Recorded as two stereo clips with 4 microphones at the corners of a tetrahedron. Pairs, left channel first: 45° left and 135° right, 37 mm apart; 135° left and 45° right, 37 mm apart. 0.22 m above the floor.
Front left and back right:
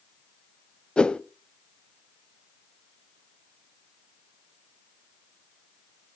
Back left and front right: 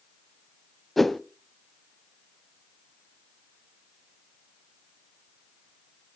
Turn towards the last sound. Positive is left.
turn(degrees=60)